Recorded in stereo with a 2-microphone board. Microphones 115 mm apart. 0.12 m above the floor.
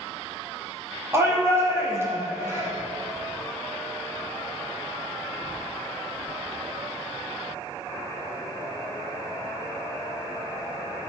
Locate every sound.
1.1 s a shout: 20° right (ahead or behind), 4 m